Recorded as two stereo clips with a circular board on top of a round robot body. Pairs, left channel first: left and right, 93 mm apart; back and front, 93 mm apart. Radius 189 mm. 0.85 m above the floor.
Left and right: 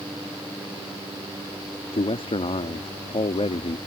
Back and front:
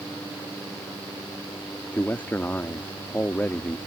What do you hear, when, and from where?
1.9 s a man speaking: 110° left